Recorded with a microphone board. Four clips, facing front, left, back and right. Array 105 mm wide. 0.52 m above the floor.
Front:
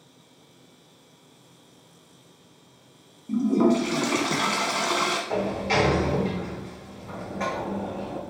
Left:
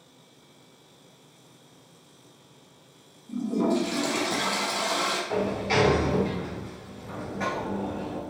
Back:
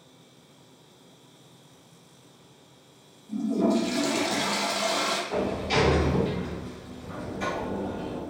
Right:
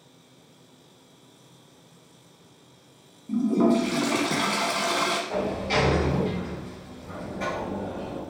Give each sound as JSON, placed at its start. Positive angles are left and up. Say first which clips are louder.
{"t": 3.3, "sound": "a toilet flushing", "louder": "right 4 dB, front 4 dB", "azimuth_deg": -30, "distance_m": 0.8}
{"t": 5.3, "sound": "a sliding door", "louder": "even, front 1 dB", "azimuth_deg": 20, "distance_m": 1.8}